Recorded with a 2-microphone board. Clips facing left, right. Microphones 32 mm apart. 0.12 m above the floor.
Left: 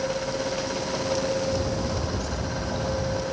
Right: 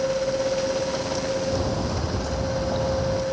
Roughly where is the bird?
Right.